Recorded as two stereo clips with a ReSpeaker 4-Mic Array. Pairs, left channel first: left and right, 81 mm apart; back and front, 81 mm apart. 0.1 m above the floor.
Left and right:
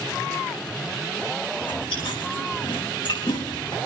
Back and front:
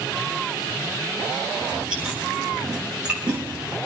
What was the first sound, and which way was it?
Chewing, 80° left.